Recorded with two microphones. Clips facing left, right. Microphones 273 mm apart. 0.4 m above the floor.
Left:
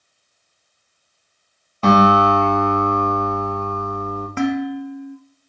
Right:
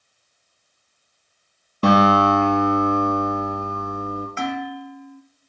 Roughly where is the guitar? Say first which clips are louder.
Left 1 dB; right.